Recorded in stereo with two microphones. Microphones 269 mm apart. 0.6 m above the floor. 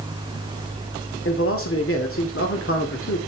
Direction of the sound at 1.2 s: 50° left (ahead or behind).